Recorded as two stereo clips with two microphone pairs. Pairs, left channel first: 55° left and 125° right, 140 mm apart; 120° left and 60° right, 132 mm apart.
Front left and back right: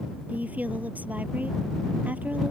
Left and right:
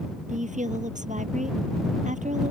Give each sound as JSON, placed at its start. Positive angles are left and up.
{"t": 0.3, "sound": "a woman speaking", "azimuth_deg": -45}